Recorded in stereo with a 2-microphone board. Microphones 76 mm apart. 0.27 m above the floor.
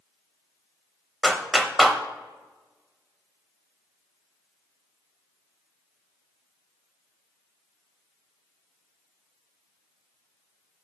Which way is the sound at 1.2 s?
Centre (ahead or behind).